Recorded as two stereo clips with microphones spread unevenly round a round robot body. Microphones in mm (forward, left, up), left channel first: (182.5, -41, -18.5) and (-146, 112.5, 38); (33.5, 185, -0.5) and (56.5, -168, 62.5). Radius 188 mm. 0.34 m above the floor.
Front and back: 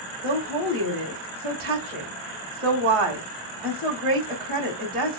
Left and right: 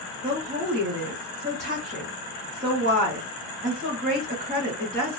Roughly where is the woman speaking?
Behind.